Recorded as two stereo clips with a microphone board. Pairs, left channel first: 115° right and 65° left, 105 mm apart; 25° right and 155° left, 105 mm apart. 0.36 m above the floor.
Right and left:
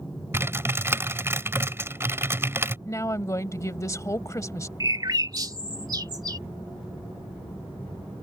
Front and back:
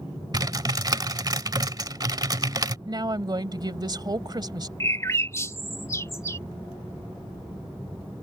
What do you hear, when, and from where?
0.3 s typing on a keyboard: 125° left
2.9 s a woman speaking: 165° right
4.8 s a bird: 30° left